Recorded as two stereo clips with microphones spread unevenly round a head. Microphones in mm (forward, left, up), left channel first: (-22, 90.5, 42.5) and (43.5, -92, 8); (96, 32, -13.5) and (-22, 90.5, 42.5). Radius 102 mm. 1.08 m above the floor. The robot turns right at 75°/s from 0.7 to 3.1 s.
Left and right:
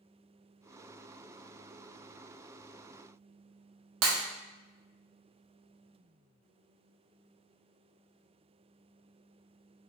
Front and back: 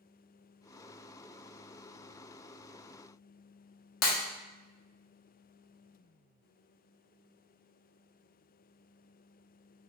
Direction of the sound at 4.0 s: 40° right.